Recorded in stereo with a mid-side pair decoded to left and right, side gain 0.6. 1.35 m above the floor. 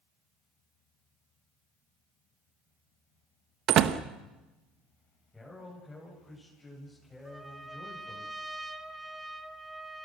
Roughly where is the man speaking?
Ahead.